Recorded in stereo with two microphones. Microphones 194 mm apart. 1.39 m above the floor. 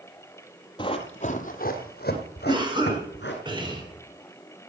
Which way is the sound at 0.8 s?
25° left (ahead or behind).